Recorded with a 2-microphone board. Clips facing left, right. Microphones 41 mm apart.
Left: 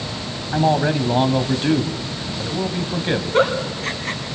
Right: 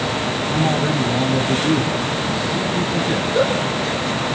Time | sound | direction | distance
0.5 | a man speaking | 35° left (ahead or behind) | 2.5 m
3.3 | a giggle | 60° left (ahead or behind) | 3.5 m